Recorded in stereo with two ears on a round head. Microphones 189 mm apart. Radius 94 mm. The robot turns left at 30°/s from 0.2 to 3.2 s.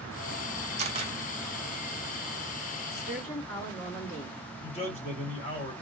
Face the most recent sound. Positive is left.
turn(degrees=30)  # may be behind; listen again after turning